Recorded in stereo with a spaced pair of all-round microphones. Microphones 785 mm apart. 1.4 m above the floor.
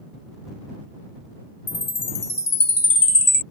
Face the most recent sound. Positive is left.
turn(degrees=80)